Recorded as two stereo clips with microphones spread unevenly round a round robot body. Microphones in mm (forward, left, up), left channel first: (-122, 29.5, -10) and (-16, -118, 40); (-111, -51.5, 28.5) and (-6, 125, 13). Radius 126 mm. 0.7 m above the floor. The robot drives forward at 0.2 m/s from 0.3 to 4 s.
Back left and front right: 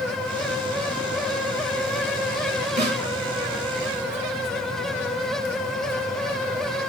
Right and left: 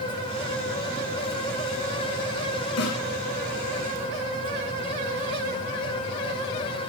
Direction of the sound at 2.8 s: 105° right.